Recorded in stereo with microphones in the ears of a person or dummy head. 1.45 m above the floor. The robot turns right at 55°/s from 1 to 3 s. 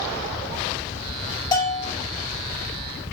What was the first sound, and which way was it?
A bell, 25° left (ahead or behind).